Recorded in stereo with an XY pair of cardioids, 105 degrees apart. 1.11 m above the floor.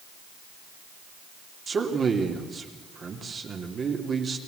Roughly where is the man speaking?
Ahead right.